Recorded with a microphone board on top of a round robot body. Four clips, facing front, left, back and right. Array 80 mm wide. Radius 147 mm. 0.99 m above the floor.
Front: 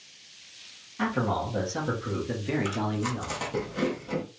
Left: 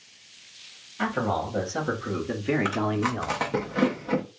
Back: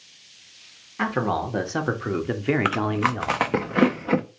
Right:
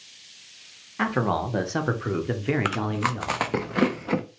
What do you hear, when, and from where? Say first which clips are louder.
1.0 s a man speaking: right 2 dB, back 3 dB; 130° right, 1.5 m; by 3.4 s 145° left, 0.9 m
2.6 s chewing: even, back 7 dB; 165° right, 0.5 m